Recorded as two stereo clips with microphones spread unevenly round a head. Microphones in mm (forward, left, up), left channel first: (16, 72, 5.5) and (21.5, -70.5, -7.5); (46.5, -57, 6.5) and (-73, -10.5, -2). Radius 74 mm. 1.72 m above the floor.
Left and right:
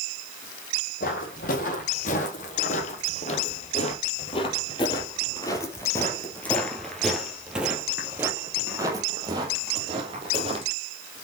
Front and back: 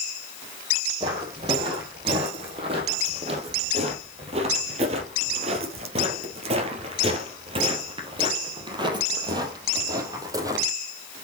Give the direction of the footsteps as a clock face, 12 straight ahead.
9 o'clock.